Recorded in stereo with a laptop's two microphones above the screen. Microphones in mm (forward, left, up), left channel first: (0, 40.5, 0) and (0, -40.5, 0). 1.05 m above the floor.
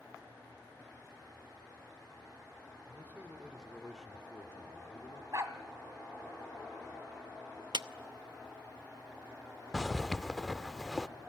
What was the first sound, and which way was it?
A man speaking, 30° right (ahead or behind).